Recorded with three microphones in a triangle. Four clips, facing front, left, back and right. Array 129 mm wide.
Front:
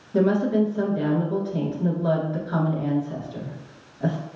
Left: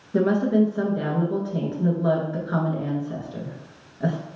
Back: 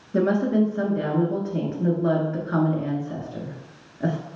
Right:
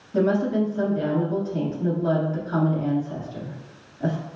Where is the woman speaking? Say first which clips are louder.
Left 2 dB, even; 135° left, 1.5 m.